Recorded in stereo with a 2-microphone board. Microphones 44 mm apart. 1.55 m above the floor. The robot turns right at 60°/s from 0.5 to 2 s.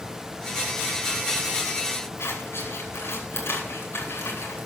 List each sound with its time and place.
2.2 s scissors: 80° left, 5.5 m